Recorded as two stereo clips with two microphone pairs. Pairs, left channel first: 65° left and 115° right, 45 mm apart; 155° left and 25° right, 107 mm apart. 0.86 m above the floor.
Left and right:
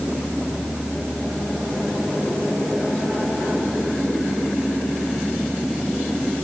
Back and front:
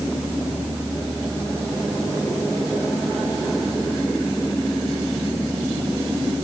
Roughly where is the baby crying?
I don't hear a baby crying.